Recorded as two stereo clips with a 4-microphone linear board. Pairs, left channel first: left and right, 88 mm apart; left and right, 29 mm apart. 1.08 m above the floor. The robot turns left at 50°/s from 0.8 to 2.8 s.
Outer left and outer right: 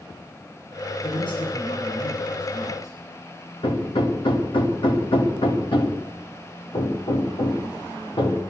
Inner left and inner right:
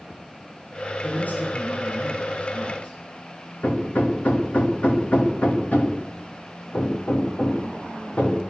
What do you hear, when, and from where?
1.0 s a man speaking: 130° left, 9 m; by 3.0 s 40° left, 9 m
3.6 s hammering: 85° left, 2.5 m